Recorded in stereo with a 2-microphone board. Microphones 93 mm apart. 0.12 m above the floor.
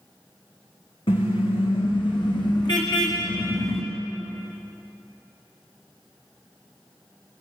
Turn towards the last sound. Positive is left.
turn(degrees=35)  # may be behind; listen again after turning